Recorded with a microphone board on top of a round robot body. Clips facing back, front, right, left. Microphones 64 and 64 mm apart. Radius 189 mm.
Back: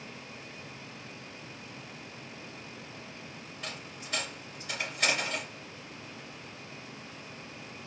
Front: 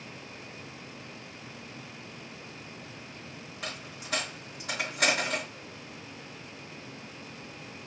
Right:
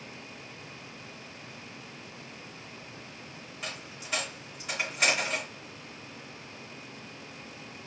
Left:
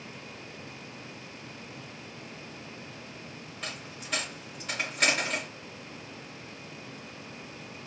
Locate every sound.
3.6 s a dropped coin: 5° right, 3 m